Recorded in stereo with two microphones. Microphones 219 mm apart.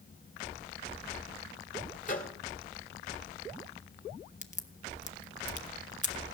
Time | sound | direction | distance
2.0 | a microwave | 35° left (ahead or behind) | 1.7 m
4.4 | a crack | 35° left (ahead or behind) | 0.8 m